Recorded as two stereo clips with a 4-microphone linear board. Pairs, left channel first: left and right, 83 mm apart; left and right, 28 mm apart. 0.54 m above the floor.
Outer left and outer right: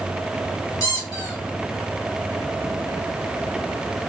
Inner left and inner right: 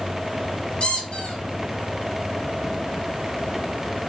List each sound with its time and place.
0.8 s a squeak: 45° left (ahead or behind), 1.0 m